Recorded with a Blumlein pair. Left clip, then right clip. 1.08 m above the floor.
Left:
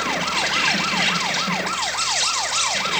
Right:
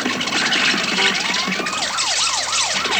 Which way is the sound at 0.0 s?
30° right.